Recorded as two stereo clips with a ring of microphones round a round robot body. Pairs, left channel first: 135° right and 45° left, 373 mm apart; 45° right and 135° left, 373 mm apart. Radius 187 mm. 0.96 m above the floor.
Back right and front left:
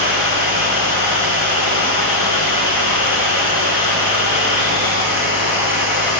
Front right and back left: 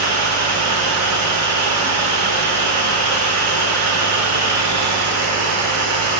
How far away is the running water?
About 3.5 m.